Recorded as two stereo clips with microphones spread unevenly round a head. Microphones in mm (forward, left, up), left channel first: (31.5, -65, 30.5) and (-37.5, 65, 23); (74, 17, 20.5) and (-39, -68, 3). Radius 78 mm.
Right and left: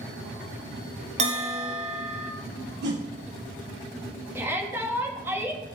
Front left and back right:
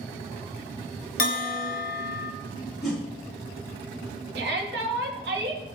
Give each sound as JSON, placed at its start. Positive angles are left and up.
{"t": 1.2, "sound": "a bell", "azimuth_deg": 70, "distance_m": 1.2}
{"t": 2.8, "sound": "a whoosh", "azimuth_deg": 125, "distance_m": 4.5}
{"t": 4.3, "sound": "a shout", "azimuth_deg": -165, "distance_m": 2.5}